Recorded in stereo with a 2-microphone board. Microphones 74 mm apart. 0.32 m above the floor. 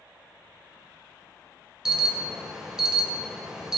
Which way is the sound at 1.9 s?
5° right (ahead or behind).